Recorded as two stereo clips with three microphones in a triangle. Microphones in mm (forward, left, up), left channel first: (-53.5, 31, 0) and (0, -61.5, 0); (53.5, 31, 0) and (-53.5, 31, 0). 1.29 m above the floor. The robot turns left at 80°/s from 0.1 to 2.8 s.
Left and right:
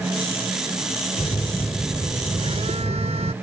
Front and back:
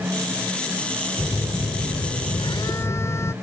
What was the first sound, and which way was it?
A phone buzzing, 65° left.